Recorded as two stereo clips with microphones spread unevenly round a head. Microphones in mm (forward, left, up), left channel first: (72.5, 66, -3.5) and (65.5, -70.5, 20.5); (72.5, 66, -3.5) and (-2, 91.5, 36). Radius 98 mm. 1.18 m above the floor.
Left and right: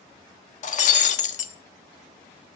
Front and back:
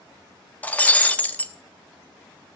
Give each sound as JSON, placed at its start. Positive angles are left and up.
{"t": 0.6, "sound": "breaking glass", "azimuth_deg": 65, "distance_m": 1.0}